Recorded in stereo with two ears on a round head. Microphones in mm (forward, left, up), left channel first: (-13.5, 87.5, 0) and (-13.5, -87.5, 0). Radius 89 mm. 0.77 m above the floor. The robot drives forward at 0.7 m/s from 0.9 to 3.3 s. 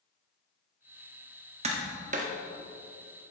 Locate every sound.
1.6 s tapping: 35° right (ahead or behind), 1.5 m; by 2.3 s 40° right (ahead or behind), 1.2 m